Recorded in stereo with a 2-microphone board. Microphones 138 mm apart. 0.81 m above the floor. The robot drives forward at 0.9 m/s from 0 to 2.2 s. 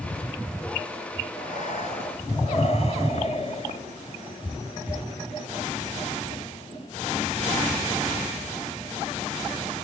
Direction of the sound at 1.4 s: 65° left (ahead or behind).